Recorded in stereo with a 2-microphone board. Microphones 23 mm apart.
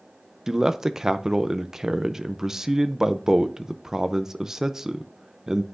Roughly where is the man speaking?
Centre.